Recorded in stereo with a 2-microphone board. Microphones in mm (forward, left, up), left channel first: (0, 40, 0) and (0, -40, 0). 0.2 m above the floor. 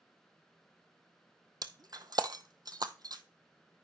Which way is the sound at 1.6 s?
55° right (ahead or behind).